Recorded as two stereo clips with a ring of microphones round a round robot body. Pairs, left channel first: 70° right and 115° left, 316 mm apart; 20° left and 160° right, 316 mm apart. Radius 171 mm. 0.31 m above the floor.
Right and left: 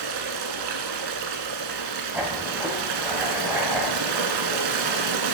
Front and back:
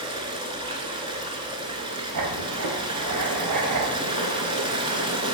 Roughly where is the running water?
Behind left.